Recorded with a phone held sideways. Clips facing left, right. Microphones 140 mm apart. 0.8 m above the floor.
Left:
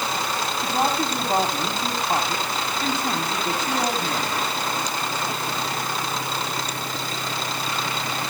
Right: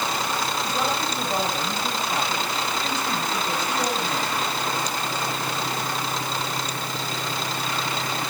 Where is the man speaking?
55° left (ahead or behind), 5 m.